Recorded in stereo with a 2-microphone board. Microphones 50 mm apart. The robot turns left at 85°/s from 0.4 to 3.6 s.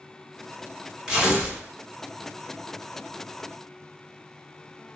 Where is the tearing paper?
10° right (ahead or behind), 1.7 m; by 1.6 s 20° right (ahead or behind), 1.7 m.